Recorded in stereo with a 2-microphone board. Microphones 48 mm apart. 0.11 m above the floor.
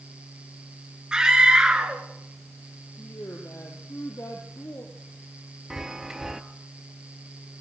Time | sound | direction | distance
1.1 | a scream | 15° right (ahead or behind) | 1.5 m
3.0 | a woman speaking | 65° left (ahead or behind) | 3.5 m
5.7 | a chime | 10° right (ahead or behind) | 1.1 m